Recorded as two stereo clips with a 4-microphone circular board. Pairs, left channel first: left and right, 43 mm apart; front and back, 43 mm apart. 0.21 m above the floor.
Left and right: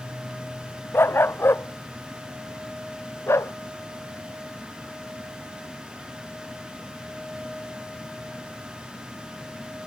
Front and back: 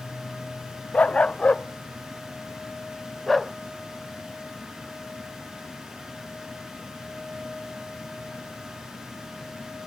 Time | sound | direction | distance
0.9 | a dog barking | 60° left | ?